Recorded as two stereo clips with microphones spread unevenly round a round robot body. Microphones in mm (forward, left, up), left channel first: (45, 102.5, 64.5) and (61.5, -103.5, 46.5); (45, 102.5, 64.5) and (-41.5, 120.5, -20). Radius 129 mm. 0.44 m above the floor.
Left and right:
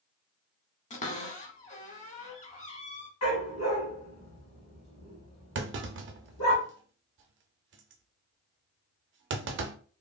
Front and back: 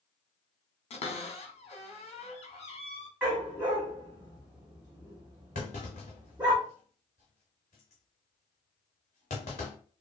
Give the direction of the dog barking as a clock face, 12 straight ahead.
9 o'clock.